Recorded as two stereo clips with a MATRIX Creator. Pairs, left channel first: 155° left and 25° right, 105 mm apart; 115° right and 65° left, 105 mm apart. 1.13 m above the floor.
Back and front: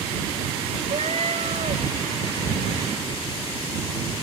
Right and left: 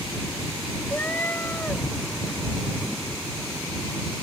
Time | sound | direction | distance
0.9 | a cat meowing | 40° right | ?